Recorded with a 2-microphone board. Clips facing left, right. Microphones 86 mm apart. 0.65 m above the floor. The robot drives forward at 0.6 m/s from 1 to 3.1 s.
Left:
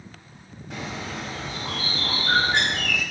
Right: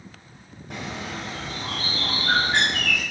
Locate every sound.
0.7 s a bird: 65° right (ahead or behind), 3.5 m; by 3.0 s 80° right, 3 m